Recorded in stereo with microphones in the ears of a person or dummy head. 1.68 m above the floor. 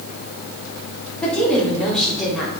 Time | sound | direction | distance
1.2 | a woman speaking | 10° left (ahead or behind) | 4.5 m